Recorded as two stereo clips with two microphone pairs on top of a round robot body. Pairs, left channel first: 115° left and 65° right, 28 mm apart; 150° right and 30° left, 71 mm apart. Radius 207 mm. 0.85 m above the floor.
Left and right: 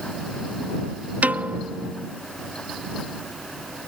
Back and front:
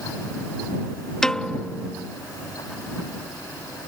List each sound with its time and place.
1.2 s a piano: 70° right